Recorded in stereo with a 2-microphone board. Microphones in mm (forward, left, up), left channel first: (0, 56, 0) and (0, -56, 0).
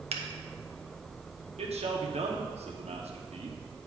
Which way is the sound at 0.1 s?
85° right.